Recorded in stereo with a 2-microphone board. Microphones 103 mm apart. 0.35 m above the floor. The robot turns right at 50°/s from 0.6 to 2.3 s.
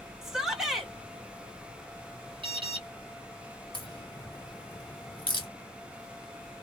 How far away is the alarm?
About 1.5 m.